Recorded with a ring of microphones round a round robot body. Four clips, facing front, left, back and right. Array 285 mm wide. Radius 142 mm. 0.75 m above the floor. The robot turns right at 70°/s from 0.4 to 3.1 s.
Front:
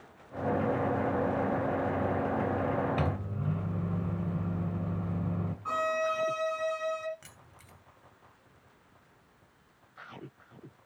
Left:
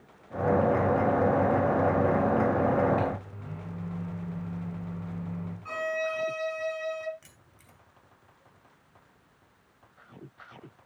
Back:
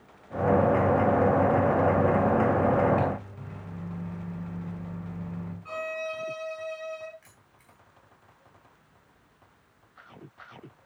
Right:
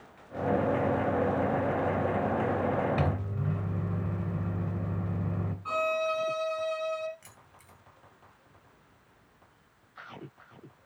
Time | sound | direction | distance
3.0 | a microwave | 55° right | 2.5 m
5.7 | a violin | 20° right | 2.5 m
7.2 | keys jangling | 5° left | 2.5 m